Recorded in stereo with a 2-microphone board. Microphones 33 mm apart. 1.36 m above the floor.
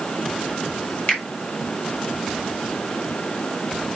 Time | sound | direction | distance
1.1 | a finger snap | 50° left (ahead or behind) | 5 m